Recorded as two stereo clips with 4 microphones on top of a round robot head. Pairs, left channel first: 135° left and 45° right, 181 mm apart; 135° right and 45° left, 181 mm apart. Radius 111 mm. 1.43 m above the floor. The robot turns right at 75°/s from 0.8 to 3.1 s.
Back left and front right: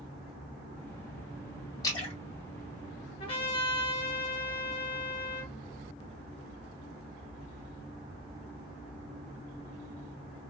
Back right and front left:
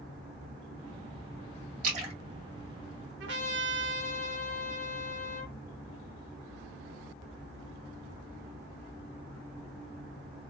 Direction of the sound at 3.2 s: 70° left.